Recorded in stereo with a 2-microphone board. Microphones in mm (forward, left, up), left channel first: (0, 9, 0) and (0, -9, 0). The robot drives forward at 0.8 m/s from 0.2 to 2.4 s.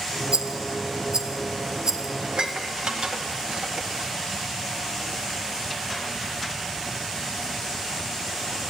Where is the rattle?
60° right (ahead or behind), 1.1 m; by 2.1 s 25° right (ahead or behind), 2 m.